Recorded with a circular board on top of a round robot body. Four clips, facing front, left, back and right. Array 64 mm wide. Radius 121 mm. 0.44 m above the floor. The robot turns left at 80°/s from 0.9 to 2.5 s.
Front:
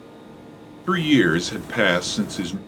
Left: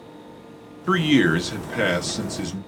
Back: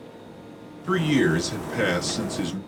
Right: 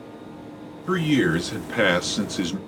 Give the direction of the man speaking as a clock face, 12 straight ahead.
10 o'clock.